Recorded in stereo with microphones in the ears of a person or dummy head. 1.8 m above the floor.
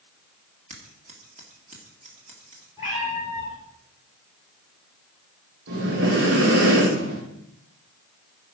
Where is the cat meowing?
10° right (ahead or behind), 7.5 m.